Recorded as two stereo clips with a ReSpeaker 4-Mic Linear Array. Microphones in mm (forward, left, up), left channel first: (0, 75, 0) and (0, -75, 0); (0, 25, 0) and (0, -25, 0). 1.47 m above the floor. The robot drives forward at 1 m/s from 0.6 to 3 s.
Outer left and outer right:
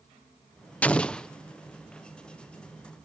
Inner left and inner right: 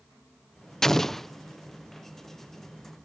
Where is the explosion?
10° left (ahead or behind); by 1.3 s 5° left (ahead or behind).